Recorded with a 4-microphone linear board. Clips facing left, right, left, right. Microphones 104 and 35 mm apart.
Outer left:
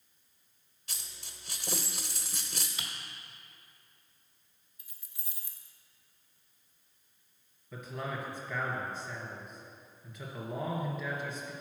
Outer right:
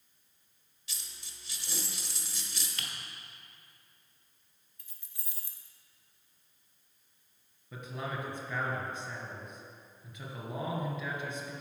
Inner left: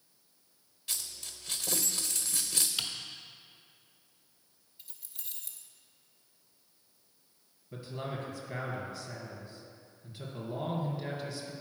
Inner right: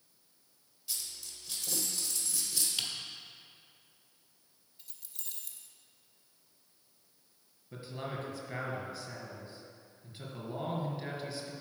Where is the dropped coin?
50° left (ahead or behind), 1.0 m.